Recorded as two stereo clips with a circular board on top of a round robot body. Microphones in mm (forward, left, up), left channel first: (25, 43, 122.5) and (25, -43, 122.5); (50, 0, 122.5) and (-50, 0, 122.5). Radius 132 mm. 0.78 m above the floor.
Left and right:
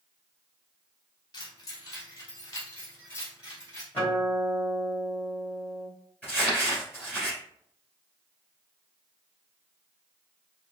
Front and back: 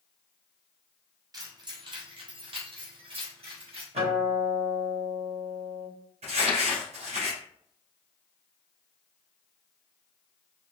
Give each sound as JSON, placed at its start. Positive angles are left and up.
{"t": 1.3, "sound": "keys jangling", "azimuth_deg": 130, "distance_m": 1.1}
{"t": 3.9, "sound": "a guitar", "azimuth_deg": 160, "distance_m": 2.0}
{"t": 6.2, "sound": "crumpling", "azimuth_deg": 165, "distance_m": 2.0}